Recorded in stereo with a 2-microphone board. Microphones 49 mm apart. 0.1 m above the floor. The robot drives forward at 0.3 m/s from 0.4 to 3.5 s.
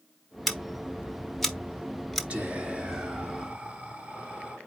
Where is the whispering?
25° right (ahead or behind), 1.7 m.